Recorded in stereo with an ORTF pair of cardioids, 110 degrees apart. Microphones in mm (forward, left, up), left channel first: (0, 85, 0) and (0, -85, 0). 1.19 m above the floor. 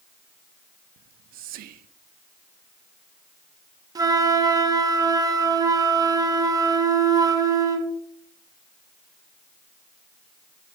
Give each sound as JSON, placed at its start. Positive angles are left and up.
{"t": 1.0, "sound": "whispering", "azimuth_deg": -65, "distance_m": 0.5}
{"t": 4.0, "sound": "a flute", "azimuth_deg": -20, "distance_m": 0.8}